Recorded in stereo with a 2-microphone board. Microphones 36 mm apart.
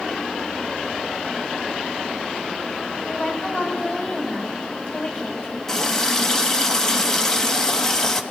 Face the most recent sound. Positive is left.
turn(degrees=15)  # may be behind; listen again after turning